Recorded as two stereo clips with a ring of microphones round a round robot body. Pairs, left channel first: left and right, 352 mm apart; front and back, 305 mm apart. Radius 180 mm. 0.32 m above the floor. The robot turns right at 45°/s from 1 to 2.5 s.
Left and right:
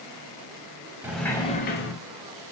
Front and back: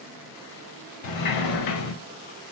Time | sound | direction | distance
1.0 | a sliding door | 5° right | 0.5 m